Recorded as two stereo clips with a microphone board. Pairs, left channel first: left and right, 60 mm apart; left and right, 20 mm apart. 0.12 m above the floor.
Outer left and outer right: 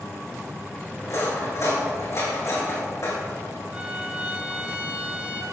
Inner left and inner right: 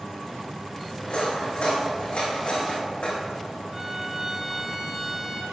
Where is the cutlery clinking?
60° left (ahead or behind), 4.5 m.